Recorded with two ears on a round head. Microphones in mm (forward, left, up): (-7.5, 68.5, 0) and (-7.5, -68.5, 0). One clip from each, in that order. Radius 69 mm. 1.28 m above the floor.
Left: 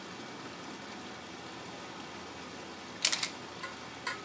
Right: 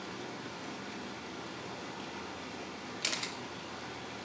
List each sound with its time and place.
0.0 s running water: 20° left (ahead or behind), 2.5 m
3.0 s a camera shutter: 35° left (ahead or behind), 0.7 m